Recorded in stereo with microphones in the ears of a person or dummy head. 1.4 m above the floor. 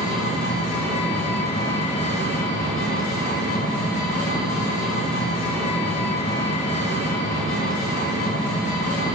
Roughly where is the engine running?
Left.